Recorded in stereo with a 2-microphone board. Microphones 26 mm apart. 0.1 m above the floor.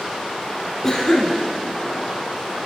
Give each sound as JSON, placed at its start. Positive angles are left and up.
{"t": 0.8, "sound": "a cough", "side_deg": 20, "distance_m": 1.1}